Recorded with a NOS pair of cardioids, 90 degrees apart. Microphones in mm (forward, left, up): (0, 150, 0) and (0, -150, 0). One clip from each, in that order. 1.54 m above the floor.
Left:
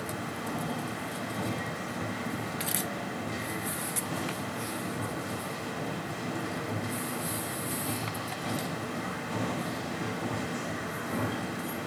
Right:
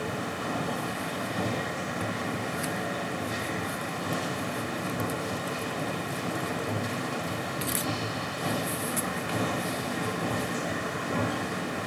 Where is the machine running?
30° right, 0.8 m.